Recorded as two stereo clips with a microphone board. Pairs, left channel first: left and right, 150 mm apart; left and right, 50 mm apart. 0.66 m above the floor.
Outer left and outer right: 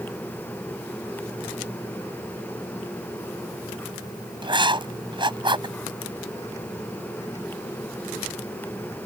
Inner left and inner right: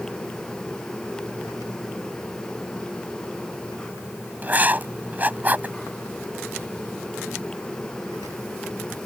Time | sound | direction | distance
4.4 | writing | 30° right (ahead or behind) | ?